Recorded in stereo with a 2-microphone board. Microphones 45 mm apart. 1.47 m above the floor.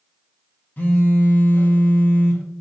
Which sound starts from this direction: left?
A phone buzzing, at 0.8 s.